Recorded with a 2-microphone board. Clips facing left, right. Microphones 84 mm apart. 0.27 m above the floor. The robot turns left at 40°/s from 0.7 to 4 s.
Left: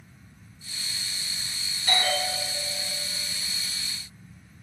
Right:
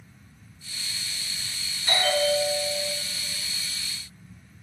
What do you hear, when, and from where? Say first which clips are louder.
1.9 s a bell: right 4 dB; 30° right, 1.4 m; by 2.9 s 75° right, 1.4 m